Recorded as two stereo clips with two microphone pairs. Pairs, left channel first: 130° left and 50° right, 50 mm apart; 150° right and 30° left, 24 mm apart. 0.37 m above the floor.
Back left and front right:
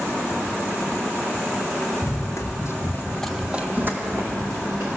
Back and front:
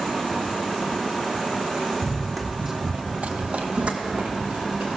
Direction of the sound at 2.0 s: 130° left.